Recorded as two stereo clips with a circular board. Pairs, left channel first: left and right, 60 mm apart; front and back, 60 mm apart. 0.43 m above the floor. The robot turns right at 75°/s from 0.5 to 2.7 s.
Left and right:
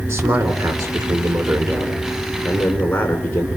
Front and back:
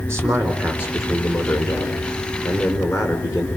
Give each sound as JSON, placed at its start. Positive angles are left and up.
{"t": 0.1, "sound": "a man speaking", "azimuth_deg": -135, "distance_m": 4.5}